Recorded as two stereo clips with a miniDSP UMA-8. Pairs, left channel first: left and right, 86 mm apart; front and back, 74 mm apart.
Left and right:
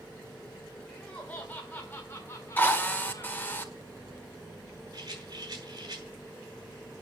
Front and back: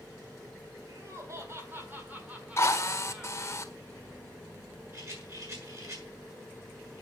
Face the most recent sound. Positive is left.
turn(degrees=-130)